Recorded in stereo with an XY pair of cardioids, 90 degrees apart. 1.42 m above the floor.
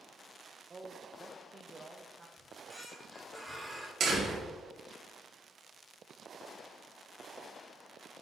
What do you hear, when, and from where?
0.7 s a man speaking: 30° right, 0.8 m
2.4 s a squeak: 5° left, 2.5 m
4.0 s a door slam: 65° right, 2.5 m